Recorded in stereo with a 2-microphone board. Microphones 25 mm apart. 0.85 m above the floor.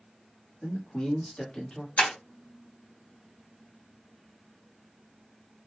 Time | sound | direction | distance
0.6 | a man speaking | 50° left (ahead or behind) | 1.5 m
2.0 | breaking glass | 80° left | 1.2 m